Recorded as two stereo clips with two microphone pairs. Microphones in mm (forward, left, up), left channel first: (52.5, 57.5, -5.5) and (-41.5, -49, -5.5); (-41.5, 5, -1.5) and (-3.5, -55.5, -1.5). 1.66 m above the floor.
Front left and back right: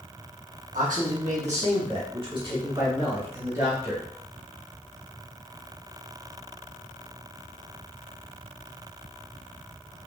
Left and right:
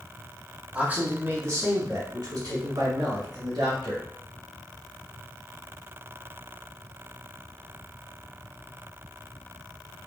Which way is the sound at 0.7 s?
125° right.